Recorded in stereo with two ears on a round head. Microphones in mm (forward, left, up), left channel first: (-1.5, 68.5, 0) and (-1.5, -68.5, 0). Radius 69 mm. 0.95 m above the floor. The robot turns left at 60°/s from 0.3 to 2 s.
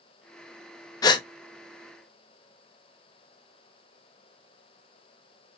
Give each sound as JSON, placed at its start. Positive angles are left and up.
{"t": 1.0, "sound": "a gasp", "side_deg": 25, "distance_m": 0.5}